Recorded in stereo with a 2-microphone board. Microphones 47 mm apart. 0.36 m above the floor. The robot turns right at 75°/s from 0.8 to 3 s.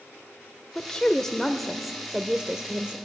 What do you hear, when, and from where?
0.8 s a woman speaking: 20° left (ahead or behind), 0.9 m; by 3.0 s 20° right (ahead or behind), 0.9 m